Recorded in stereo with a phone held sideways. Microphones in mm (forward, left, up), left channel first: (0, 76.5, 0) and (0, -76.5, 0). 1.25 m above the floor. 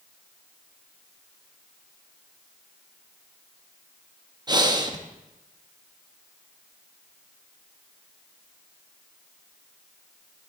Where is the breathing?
25° right (ahead or behind), 0.7 m.